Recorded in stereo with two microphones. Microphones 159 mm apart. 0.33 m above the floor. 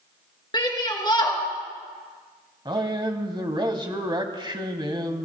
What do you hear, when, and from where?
0.5 s a shout: 30° left (ahead or behind), 4 m
2.6 s a man speaking: 30° right (ahead or behind), 1.8 m